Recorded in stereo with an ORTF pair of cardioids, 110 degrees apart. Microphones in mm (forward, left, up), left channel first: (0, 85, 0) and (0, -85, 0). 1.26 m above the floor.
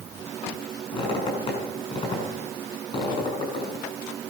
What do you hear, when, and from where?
0.9 s a squeak: 30° left, 7 m